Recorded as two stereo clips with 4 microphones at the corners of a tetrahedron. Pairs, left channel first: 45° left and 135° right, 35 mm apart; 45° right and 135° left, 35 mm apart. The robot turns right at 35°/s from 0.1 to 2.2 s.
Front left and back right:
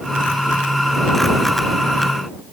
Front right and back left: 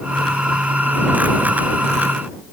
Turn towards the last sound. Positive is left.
No sound to turn to.